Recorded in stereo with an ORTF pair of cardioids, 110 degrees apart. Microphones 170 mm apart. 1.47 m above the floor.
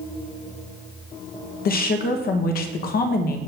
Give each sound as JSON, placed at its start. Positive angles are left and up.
{"t": 1.6, "sound": "a woman speaking", "azimuth_deg": 60, "distance_m": 1.8}